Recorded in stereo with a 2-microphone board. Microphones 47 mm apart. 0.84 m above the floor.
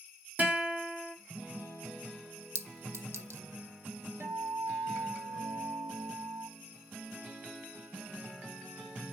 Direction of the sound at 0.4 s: 35° right (ahead or behind).